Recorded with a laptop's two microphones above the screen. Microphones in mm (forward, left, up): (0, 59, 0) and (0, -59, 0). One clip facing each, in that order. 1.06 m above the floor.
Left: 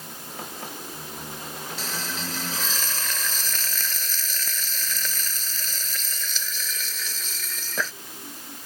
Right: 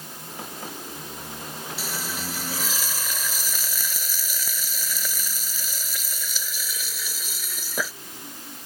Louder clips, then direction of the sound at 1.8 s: Even; 10° right (ahead or behind).